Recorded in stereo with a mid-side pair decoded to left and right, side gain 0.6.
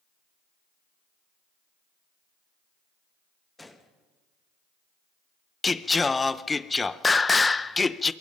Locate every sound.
3.6 s a gunshot: 10° left, 1.8 m
5.6 s singing: 20° left, 0.6 m